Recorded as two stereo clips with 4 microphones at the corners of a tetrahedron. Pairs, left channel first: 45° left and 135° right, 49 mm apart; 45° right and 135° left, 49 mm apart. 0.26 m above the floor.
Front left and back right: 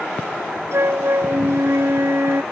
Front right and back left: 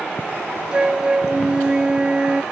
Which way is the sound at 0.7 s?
155° right.